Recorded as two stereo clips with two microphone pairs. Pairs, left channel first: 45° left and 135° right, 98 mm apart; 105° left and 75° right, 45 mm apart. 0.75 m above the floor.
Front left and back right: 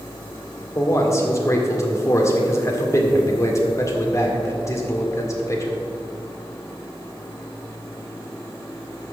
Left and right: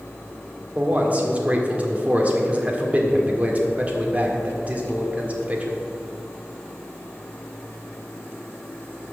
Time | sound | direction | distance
0.8 | a man speaking | 15° right | 1.7 m